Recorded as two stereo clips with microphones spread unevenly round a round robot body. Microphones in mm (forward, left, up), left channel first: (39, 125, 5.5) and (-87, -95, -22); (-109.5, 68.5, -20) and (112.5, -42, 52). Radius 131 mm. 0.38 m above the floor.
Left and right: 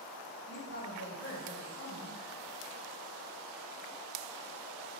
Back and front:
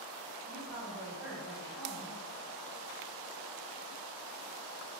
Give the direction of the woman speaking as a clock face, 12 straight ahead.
9 o'clock.